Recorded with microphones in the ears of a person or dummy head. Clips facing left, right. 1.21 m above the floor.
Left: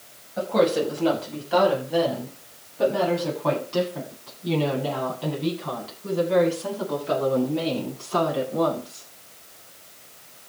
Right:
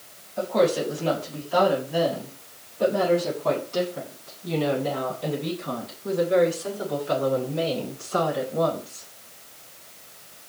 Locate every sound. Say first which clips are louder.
0.4 s a woman speaking: left 1 dB; 85° left, 8.5 m; by 9.0 s 90° left, 13.5 m